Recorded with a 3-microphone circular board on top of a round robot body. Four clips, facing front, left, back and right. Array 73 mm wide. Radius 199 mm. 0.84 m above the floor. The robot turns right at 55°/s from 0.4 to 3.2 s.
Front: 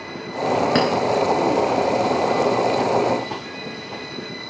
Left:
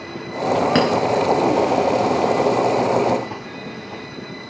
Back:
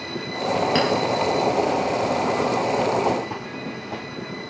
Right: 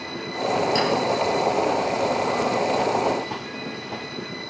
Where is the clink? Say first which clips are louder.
Left 6 dB, front 2 dB; 50° left, 0.6 m; by 0.9 s 55° left, 0.6 m.